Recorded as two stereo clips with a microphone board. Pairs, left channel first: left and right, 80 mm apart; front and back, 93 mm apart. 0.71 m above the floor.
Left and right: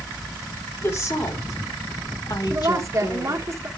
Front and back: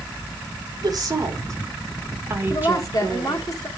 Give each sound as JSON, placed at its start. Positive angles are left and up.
{"t": 0.8, "sound": "a woman speaking", "azimuth_deg": 140, "distance_m": 2.5}
{"t": 2.5, "sound": "a woman speaking", "azimuth_deg": -45, "distance_m": 1.9}